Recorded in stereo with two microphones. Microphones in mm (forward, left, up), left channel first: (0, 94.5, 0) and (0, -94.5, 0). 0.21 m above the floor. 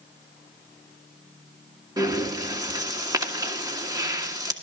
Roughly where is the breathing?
Centre.